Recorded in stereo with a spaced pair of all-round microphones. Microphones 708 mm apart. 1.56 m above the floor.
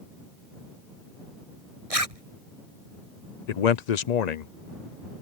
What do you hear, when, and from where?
1.9 s a zipper: 55° right (ahead or behind)
3.5 s a man speaking: 70° left (ahead or behind)